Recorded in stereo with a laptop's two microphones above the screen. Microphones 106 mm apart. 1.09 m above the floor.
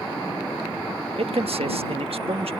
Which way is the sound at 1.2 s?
75° right (ahead or behind).